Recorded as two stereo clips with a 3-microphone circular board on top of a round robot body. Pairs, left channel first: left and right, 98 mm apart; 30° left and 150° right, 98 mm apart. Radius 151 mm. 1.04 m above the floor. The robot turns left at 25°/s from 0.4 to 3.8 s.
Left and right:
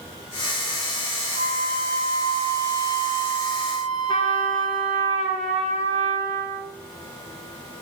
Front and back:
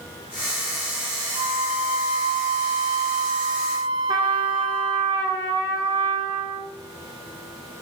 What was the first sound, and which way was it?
A flute, 115° right.